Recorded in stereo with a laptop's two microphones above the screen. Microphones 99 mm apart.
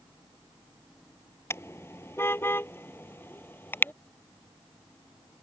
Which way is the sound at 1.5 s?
25° left (ahead or behind).